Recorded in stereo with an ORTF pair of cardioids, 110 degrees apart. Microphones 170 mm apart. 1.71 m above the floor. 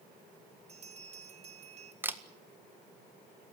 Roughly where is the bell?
Ahead right.